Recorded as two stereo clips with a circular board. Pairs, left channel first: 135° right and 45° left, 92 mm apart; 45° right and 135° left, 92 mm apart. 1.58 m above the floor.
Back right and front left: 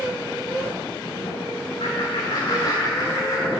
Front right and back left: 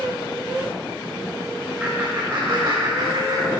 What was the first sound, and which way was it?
Laughter, 145° right.